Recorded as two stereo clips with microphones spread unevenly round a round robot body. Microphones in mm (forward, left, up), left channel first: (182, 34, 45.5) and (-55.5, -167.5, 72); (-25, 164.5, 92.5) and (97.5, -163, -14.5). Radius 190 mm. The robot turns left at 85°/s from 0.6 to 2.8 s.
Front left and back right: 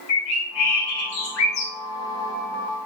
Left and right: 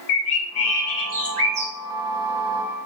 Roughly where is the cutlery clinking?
No cutlery clinking in this recording.